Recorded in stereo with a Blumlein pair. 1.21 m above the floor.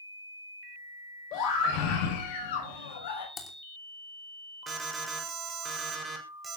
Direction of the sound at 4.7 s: 15° right.